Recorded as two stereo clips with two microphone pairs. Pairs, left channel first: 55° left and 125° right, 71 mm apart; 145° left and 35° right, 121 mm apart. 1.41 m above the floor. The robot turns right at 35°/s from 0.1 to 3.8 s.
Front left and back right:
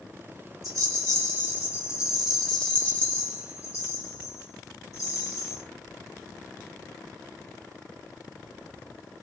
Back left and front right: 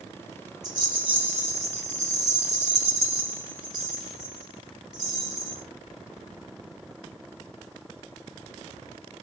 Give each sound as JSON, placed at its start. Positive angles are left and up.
{"t": 0.6, "sound": "a rattle", "azimuth_deg": -90, "distance_m": 1.2}